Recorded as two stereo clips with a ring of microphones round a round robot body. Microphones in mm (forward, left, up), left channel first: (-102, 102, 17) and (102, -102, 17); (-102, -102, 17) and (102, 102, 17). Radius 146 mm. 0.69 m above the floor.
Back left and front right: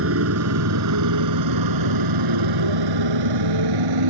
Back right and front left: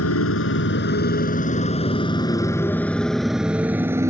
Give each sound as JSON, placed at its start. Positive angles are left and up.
{"t": 0.0, "sound": "a motorcycle", "azimuth_deg": -90}